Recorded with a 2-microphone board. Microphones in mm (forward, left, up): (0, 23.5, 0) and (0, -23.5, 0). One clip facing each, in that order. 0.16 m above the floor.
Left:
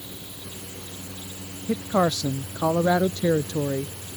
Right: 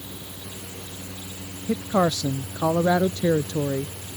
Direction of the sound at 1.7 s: 5° right (ahead or behind).